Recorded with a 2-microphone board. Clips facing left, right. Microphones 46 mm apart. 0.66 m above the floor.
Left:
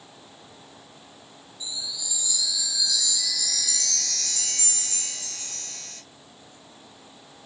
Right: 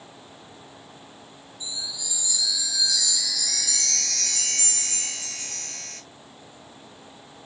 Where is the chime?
55° right (ahead or behind), 1.0 m.